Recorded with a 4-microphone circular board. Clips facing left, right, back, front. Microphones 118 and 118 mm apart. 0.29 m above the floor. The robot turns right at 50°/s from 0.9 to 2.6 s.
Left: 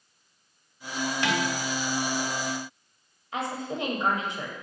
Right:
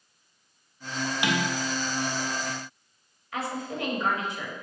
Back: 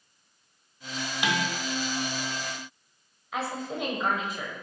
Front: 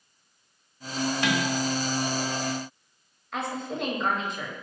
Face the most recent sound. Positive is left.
turn(degrees=100)